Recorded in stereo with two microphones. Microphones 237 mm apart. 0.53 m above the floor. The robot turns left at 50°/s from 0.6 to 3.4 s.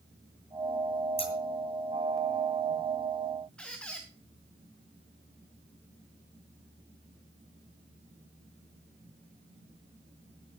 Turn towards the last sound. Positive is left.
turn(degrees=5)  # may be behind; listen again after turning